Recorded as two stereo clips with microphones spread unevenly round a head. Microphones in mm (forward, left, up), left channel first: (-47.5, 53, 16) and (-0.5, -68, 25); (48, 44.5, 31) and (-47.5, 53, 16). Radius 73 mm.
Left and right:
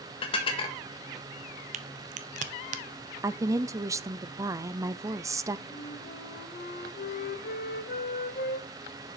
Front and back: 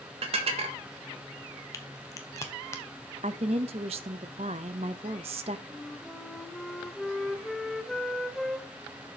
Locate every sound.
0.2 s dishes clattering: 160° left, 1.6 m
1.7 s a crack: 65° right, 0.7 m
3.2 s a woman speaking: 135° right, 0.6 m
5.7 s a flute: 80° left, 0.9 m